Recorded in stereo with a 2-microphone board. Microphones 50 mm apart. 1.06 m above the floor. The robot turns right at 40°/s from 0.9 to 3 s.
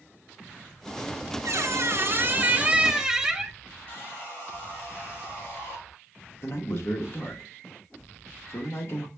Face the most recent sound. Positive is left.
turn(degrees=55)  # may be behind; listen again after turning